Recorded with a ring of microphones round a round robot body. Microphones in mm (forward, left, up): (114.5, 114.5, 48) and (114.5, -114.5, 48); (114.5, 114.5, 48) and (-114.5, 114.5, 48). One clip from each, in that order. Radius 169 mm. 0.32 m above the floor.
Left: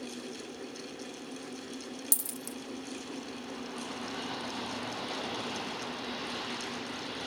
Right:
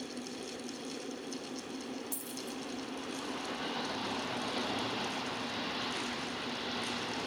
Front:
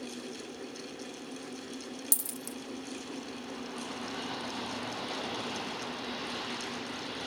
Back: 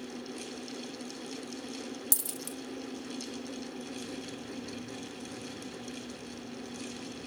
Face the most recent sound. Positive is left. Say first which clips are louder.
# left 3 dB, back 1 dB
turn(degrees=85)